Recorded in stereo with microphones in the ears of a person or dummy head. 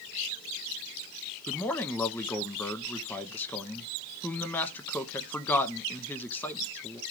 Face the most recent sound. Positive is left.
turn(degrees=10)  # may be behind; listen again after turning